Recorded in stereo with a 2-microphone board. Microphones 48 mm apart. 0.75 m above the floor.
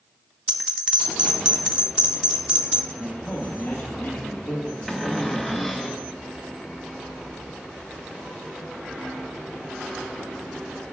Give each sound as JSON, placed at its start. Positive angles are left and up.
{"t": 0.5, "sound": "a bell", "side_deg": -20, "distance_m": 0.9}
{"t": 2.9, "sound": "a man speaking", "side_deg": 50, "distance_m": 2.0}
{"t": 4.9, "sound": "a cupboard door", "side_deg": 5, "distance_m": 0.9}